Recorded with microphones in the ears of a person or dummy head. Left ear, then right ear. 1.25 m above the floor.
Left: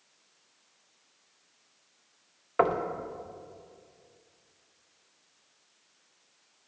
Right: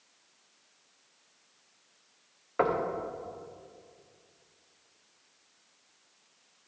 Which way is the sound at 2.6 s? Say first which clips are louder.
Left 2 dB; 25° left (ahead or behind).